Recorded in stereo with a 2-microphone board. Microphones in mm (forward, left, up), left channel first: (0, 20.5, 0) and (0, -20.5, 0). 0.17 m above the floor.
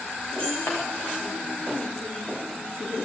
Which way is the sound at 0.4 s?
70° left (ahead or behind).